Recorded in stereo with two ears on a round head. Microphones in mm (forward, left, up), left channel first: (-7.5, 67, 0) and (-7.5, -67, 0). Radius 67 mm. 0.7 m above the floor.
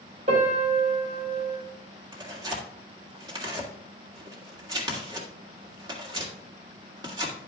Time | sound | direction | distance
0.3 | a piano | 45° right (ahead or behind) | 3.5 m
2.1 | tearing paper | 30° right (ahead or behind) | 1.9 m